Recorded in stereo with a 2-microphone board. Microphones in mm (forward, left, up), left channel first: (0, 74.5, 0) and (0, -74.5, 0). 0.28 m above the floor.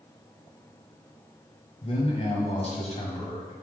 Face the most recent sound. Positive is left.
turn(degrees=45)  # may be behind; listen again after turning